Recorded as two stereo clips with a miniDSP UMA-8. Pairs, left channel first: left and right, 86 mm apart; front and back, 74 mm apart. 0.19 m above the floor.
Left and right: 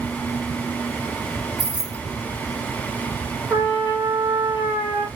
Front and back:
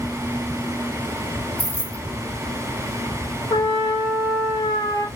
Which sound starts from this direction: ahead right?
A trumpet, at 3.5 s.